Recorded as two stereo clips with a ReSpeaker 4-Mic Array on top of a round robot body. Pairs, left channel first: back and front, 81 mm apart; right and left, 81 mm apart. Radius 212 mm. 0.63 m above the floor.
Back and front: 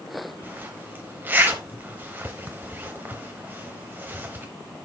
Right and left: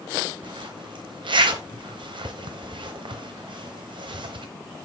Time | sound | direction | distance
0.4 | a zipper | 70° left | 0.9 m